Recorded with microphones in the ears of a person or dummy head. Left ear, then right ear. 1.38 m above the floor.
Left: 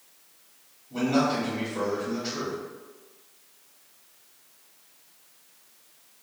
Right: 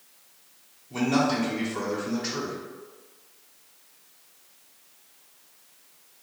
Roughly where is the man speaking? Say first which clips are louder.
Even; right.